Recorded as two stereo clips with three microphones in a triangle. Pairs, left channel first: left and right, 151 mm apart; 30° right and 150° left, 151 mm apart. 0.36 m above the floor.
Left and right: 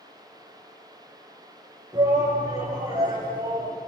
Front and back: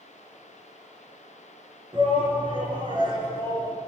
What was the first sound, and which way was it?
A shout, 155° right.